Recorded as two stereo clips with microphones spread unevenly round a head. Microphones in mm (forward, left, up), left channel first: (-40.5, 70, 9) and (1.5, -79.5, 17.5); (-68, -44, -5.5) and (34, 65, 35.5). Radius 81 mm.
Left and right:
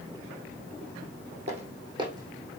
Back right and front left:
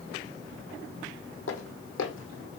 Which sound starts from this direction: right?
Footsteps, at 1.5 s.